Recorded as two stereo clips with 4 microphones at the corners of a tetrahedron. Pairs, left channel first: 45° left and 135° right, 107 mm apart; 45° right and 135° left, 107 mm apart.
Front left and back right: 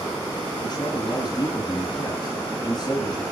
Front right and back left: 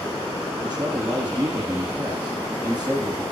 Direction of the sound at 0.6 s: 65° left.